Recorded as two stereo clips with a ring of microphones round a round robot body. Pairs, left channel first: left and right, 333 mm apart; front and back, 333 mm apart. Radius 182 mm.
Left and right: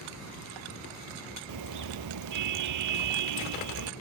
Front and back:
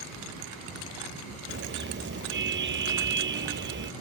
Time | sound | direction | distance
1.5 | a car horn | 120° right | ?